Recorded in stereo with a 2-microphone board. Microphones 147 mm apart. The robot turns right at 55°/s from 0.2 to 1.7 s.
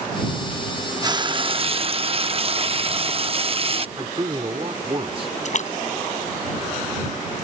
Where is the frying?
140° right; by 3.9 s 100° right.